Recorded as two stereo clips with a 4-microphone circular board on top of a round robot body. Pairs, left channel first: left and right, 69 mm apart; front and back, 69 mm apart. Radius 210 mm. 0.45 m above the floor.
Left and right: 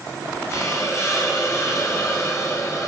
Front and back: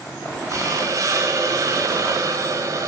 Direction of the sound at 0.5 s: 140° left.